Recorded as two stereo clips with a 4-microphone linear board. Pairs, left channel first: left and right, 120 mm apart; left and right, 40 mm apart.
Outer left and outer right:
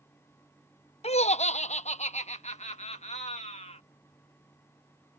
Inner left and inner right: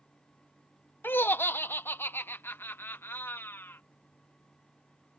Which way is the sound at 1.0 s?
60° left (ahead or behind).